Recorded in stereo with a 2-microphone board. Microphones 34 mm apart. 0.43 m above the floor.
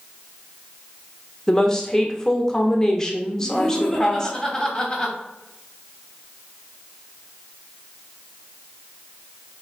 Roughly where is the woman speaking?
Centre.